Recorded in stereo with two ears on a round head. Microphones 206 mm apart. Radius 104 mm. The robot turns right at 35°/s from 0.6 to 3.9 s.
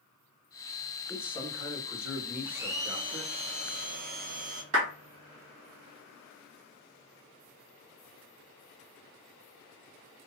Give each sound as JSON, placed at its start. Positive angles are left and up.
{"t": 1.1, "sound": "a man speaking", "azimuth_deg": 180, "distance_m": 2.0}
{"t": 2.5, "sound": "a blender", "azimuth_deg": -170, "distance_m": 0.6}
{"t": 4.7, "sound": "a clap", "side_deg": -55, "distance_m": 1.8}